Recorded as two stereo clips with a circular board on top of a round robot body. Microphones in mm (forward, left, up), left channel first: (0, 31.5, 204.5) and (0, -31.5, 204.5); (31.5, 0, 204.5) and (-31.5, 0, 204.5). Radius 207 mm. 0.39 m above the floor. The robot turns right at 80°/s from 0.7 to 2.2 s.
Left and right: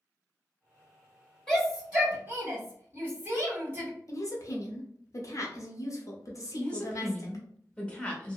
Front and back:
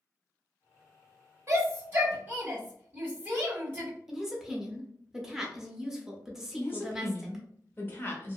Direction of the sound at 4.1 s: 100° left.